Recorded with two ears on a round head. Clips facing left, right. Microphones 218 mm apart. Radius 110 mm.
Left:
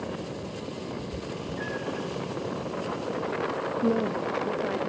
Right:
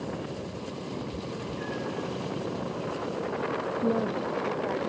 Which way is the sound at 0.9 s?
20° left (ahead or behind).